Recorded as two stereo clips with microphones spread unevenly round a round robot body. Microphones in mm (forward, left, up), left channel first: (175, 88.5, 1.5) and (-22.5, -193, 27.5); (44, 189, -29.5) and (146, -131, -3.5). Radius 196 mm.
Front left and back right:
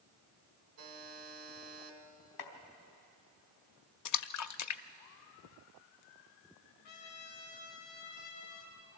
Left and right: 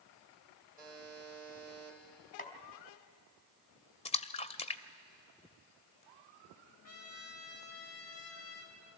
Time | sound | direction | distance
0.8 | a buzzer | 130° right | 1.8 m
2.4 | chopping | 45° left | 2.5 m
4.0 | a splash | 45° left | 0.6 m
6.8 | a trumpet | 60° left | 3 m